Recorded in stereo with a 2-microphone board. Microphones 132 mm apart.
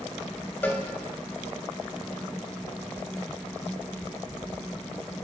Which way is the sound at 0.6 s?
15° left (ahead or behind).